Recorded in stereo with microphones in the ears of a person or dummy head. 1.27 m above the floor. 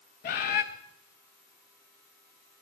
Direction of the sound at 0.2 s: 40° left (ahead or behind).